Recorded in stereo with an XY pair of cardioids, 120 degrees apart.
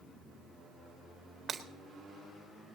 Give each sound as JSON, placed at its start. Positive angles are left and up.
{"t": 1.5, "sound": "breaking glass", "azimuth_deg": -40, "distance_m": 1.6}